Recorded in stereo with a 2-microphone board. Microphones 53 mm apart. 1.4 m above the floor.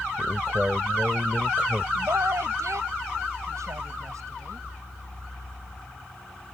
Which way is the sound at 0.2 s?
20° right (ahead or behind).